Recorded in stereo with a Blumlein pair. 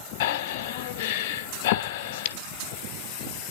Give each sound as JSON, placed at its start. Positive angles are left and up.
{"t": 0.2, "sound": "breathing", "azimuth_deg": 50, "distance_m": 0.9}